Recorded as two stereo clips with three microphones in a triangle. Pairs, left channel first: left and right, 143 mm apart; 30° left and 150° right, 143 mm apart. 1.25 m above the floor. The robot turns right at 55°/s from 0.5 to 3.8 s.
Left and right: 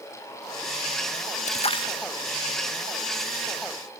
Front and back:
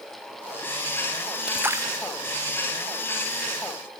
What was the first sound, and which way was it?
A splash, 125° left.